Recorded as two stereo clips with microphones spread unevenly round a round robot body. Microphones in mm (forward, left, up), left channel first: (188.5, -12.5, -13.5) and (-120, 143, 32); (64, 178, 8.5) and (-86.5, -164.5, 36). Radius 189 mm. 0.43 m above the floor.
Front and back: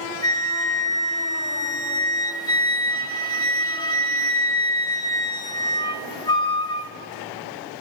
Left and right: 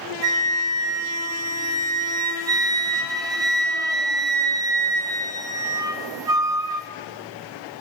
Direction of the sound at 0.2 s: 40° right.